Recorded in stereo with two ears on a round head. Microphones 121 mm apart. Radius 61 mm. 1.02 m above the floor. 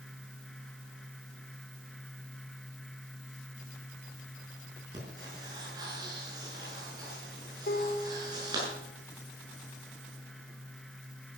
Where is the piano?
80° left, 3 m.